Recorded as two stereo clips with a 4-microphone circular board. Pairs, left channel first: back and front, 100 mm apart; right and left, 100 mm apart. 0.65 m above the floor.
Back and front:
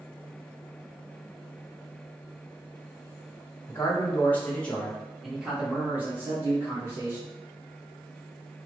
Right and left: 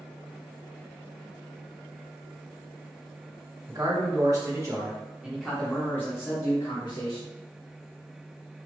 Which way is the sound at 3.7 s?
120° left.